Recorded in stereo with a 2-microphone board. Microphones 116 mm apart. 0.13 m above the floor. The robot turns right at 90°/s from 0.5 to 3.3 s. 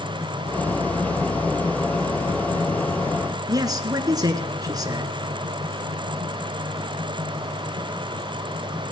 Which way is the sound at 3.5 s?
35° right (ahead or behind).